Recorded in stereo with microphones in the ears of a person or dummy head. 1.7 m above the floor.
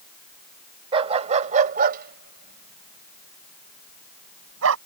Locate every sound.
0.9 s a dog barking: 30° right (ahead or behind); by 4.8 s 80° right